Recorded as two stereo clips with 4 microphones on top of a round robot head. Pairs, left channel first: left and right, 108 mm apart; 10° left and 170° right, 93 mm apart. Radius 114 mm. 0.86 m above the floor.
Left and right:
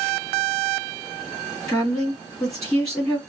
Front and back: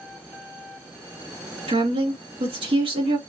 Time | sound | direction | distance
1.7 | a woman speaking | 175° left | 3 m